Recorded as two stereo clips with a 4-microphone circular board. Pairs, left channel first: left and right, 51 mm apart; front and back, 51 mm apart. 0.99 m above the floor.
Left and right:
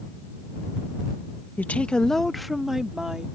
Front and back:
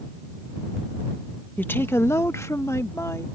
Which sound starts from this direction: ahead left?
A woman speaking, at 1.6 s.